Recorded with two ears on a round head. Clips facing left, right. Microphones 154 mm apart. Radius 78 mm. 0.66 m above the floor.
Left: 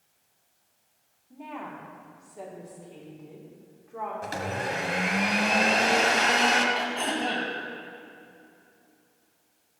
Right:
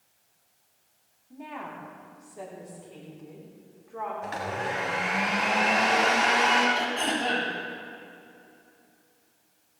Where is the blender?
40° left (ahead or behind), 2.0 m.